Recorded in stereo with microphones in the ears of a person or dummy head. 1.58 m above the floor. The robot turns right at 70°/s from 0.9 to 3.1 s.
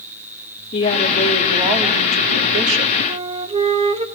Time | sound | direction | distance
0.7 | a woman speaking | 145° left | 3.5 m
3.1 | a flute | 25° right (ahead or behind) | 0.9 m